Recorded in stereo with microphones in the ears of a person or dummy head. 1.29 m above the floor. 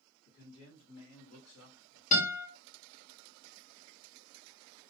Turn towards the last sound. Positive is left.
turn(degrees=45)  # may be behind; listen again after turning